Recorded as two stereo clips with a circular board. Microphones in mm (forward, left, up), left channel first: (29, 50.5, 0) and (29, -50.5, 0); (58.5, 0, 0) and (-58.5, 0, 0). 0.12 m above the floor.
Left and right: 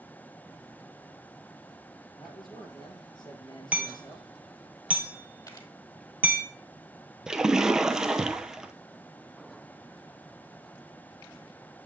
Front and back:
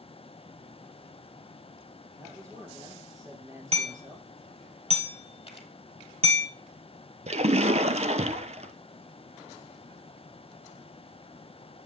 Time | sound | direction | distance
2.2 | a man speaking | 120° left | 3 m
3.7 | hammering | 165° right | 1.6 m
5.5 | a camera shutter | 40° left | 1.4 m
7.3 | a splash | 175° right | 0.5 m